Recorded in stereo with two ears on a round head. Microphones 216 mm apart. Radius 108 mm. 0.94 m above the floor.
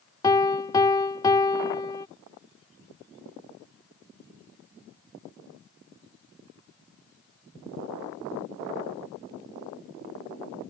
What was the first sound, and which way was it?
A piano, 15° left (ahead or behind).